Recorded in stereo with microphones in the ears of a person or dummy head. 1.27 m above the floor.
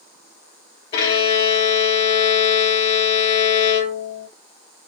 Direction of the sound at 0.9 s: 30° left (ahead or behind).